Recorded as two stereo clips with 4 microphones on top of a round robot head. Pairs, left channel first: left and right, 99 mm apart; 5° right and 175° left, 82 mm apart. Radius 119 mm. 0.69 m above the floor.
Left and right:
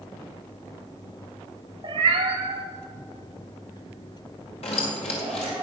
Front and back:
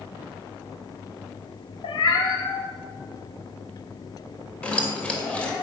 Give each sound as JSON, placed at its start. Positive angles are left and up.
{"t": 1.8, "sound": "a cat meowing", "azimuth_deg": -35, "distance_m": 0.6}
{"t": 4.6, "sound": "keys jangling", "azimuth_deg": 70, "distance_m": 2.5}